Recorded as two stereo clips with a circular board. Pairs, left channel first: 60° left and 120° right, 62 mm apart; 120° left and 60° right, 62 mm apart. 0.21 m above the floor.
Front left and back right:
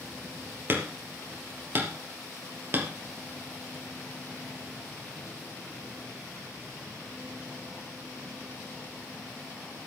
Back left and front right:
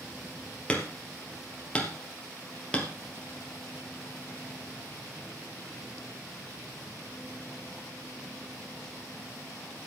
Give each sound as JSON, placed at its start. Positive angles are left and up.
{"t": 0.7, "sound": "hammering", "azimuth_deg": -170, "distance_m": 2.5}